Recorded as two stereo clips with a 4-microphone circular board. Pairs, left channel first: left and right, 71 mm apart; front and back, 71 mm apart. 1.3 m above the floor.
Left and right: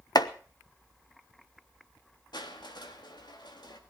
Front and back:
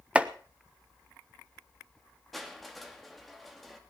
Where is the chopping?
110° left, 1.0 m.